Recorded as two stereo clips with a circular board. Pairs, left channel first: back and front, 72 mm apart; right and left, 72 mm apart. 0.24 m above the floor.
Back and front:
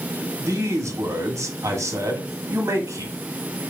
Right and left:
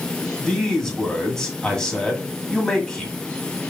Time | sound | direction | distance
0.4 | a man speaking | 10° right | 1.6 m